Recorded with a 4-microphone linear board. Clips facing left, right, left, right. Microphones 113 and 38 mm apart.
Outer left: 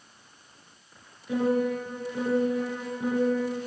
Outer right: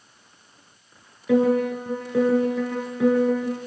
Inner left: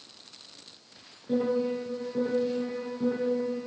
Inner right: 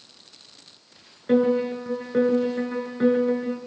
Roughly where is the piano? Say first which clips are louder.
Outer right 6 dB, inner right 6 dB; right.